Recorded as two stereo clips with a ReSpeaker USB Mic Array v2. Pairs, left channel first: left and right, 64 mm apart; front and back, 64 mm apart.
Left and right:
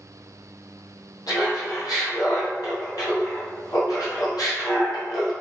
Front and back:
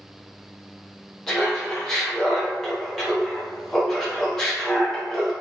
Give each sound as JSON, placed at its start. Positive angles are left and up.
{"t": 1.3, "sound": "laughter", "azimuth_deg": 85, "distance_m": 0.9}